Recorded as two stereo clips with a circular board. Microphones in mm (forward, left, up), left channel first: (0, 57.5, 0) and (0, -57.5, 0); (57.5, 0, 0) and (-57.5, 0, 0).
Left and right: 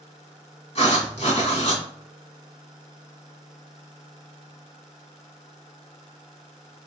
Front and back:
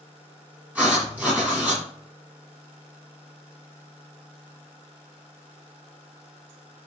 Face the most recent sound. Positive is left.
turn(degrees=105)